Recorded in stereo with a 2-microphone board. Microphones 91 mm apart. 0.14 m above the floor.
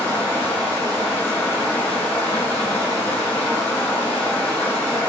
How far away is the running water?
About 1.1 m.